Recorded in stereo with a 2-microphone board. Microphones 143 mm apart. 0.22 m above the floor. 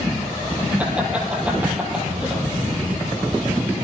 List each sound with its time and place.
0.8 s laughter: 10° right (ahead or behind), 4.5 m